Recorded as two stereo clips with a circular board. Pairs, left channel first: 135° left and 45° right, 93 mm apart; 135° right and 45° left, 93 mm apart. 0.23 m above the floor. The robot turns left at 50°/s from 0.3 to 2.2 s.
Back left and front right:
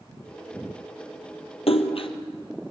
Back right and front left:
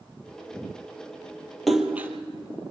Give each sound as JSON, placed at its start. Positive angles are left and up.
{"t": 1.7, "sound": "a splash", "azimuth_deg": 135, "distance_m": 1.3}